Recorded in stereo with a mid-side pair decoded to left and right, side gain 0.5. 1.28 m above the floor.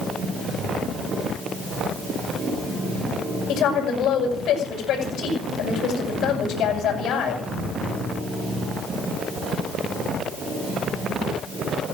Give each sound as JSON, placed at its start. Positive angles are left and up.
{"t": 3.5, "sound": "a woman speaking", "azimuth_deg": 65, "distance_m": 7.5}